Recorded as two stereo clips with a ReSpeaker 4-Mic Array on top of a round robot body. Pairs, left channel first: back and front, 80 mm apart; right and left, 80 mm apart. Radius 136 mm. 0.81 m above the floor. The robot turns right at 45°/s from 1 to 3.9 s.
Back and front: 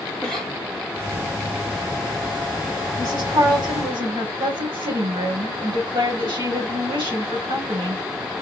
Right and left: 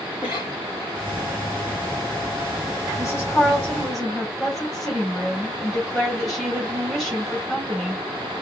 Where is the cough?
95° right, 2.5 m.